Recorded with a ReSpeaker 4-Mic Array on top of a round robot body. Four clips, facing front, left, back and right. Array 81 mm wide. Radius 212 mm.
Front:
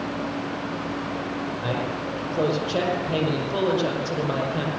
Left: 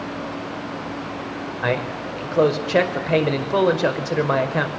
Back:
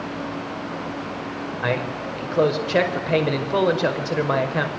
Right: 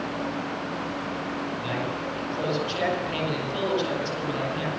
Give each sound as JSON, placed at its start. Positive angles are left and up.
{"t": 1.6, "sound": "a man speaking", "azimuth_deg": 125, "distance_m": 5.5}